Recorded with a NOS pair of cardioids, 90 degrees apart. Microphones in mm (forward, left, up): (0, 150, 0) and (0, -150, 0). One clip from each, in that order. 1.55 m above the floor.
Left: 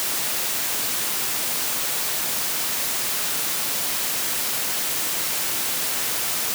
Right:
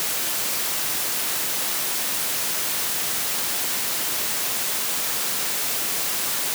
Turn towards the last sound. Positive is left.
No sound to turn to.